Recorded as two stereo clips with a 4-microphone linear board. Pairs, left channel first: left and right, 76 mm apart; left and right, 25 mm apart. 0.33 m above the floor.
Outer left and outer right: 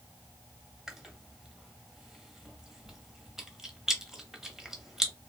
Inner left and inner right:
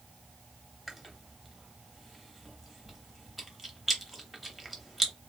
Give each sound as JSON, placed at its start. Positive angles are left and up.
{"t": 0.9, "sound": "chewing", "side_deg": -5, "distance_m": 0.6}